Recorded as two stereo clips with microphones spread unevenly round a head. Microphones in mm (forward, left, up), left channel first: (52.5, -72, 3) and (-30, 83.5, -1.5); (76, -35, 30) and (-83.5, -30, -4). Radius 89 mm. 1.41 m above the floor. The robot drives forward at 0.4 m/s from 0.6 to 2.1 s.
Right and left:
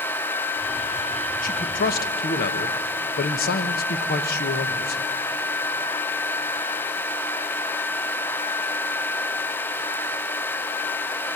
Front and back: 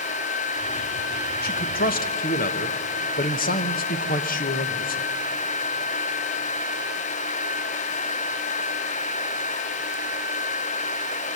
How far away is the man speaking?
About 1.2 m.